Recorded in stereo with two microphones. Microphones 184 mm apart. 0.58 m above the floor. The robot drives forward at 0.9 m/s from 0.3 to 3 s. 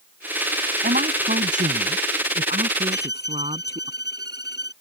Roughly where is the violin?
Left.